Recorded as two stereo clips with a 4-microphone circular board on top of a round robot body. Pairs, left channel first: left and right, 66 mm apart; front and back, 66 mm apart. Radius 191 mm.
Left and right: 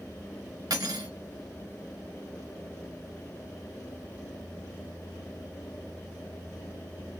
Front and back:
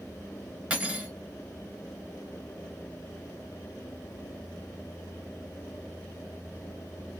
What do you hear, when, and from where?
0.7 s cutlery clinking: 100° right, 2.5 m